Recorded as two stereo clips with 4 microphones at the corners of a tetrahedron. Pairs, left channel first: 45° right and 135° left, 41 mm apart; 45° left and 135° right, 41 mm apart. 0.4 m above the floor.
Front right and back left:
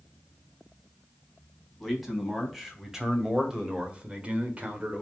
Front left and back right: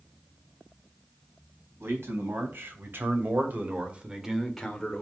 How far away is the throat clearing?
No throat clearing in this recording.